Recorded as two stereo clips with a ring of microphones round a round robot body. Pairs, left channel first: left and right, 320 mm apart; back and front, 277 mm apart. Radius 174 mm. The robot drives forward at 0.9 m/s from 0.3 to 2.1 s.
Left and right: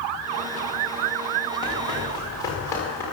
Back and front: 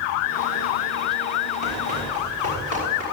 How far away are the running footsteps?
About 8 m.